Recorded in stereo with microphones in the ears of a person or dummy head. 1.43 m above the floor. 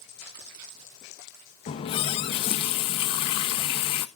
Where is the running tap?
35° left (ahead or behind), 0.7 m.